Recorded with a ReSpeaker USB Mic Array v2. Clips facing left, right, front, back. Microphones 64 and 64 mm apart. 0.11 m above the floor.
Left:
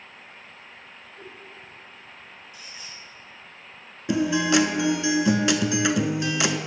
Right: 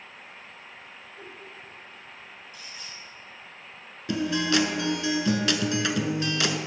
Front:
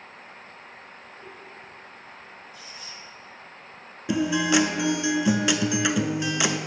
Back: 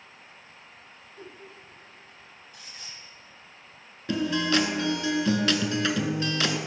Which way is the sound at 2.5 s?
170° left.